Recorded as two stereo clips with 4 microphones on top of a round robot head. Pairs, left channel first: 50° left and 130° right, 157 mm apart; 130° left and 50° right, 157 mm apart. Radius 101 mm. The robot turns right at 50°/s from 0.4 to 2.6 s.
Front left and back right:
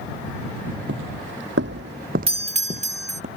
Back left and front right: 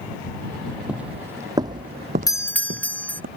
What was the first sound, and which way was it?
Footsteps, 135° right.